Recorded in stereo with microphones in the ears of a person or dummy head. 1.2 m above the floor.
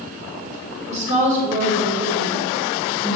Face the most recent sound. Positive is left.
turn(degrees=-50)  # may be behind; listen again after turning